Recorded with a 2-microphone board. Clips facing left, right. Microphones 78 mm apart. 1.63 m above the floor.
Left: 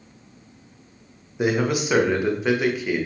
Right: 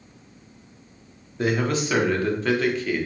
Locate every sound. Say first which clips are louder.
1.4 s a man speaking: left 2 dB; 15° left (ahead or behind), 0.6 m